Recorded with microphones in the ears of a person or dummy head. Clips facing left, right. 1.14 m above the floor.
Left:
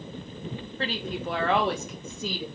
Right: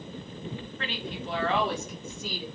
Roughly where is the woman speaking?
Left.